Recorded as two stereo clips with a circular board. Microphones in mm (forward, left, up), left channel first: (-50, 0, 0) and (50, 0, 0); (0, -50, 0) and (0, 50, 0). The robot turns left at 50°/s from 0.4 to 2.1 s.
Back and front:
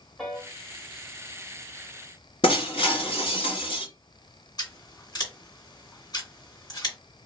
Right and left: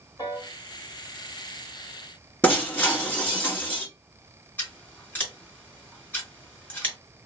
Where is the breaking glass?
160° right, 1.7 m.